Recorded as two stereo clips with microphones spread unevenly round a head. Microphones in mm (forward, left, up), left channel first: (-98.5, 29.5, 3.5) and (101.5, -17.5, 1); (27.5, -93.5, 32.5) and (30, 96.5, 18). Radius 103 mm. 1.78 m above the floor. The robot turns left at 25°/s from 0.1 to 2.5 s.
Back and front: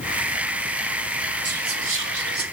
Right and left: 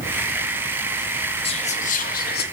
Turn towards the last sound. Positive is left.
turn(degrees=-60)